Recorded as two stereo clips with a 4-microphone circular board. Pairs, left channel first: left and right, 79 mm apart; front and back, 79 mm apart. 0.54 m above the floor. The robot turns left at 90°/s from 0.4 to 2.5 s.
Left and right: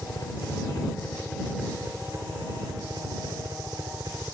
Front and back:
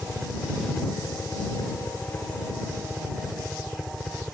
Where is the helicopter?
100° left; by 4.3 s 90° right.